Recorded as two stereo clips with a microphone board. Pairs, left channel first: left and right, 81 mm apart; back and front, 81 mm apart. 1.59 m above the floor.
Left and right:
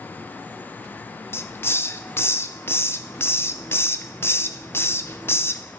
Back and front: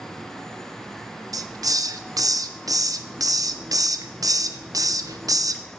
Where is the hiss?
35° left, 0.8 m.